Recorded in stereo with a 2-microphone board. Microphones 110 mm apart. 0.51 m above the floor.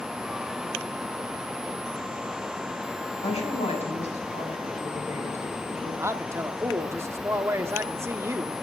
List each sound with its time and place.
3.2 s a woman speaking: 70° left (ahead or behind), 4 m; by 5.9 s 60° left (ahead or behind), 5.5 m
6.0 s a man speaking: 25° right (ahead or behind), 0.8 m